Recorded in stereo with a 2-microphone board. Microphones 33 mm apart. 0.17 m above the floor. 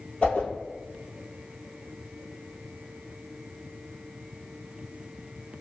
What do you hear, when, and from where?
0.2 s a whoosh: 35° left (ahead or behind), 1.8 m